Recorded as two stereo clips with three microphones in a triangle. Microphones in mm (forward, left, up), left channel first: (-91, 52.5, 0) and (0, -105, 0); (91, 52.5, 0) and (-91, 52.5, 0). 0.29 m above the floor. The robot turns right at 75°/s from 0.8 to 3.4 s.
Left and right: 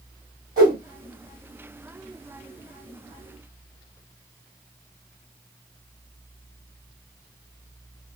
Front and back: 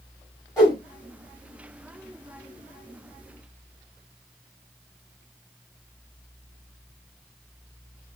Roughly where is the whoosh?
Right.